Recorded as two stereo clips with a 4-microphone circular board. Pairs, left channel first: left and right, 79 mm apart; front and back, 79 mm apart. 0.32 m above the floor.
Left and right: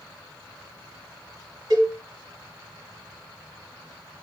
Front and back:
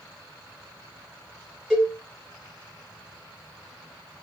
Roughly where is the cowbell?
Right.